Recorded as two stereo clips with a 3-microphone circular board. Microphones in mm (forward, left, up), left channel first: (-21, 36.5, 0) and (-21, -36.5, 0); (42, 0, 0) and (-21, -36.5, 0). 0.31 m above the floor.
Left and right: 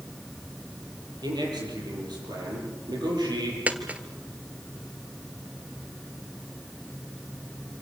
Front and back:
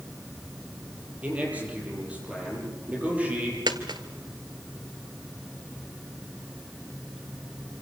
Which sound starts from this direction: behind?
A dropped coin, at 3.7 s.